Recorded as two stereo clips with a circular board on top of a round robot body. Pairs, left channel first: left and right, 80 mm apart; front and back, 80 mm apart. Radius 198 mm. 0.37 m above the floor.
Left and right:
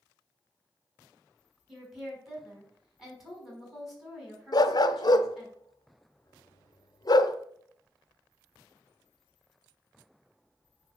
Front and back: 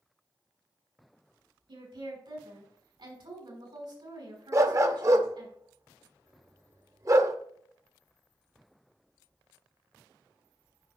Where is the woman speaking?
Straight behind, 5 m.